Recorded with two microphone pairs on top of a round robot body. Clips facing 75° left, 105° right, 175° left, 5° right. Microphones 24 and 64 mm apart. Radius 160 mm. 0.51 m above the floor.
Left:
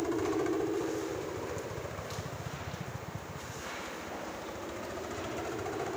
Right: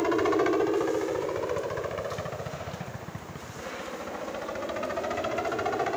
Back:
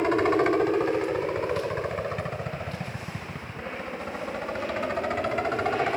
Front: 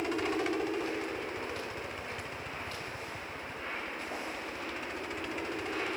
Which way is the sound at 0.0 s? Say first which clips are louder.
Right 7 dB, back 10 dB; 155° right.